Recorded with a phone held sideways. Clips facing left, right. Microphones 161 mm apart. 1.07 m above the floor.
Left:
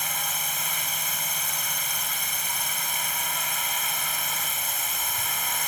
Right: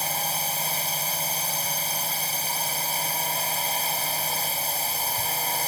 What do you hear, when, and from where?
0.0 s a drone: 35° right (ahead or behind)